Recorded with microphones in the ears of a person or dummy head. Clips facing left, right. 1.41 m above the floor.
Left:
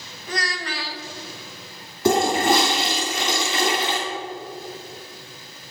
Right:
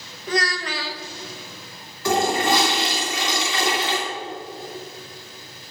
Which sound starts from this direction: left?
A toilet flushing, at 2.0 s.